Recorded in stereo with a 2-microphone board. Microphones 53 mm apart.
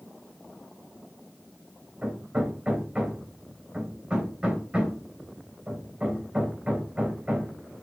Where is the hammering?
20° right (ahead or behind), 3.5 m.